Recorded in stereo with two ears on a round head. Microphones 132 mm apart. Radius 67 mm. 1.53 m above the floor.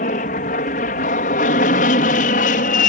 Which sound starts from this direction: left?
An aircraft, at 0.0 s.